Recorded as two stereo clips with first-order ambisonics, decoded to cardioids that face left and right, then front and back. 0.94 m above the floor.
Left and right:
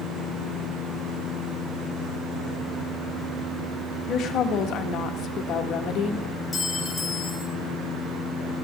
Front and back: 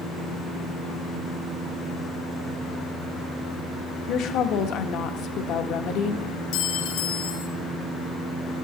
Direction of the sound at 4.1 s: 40° left.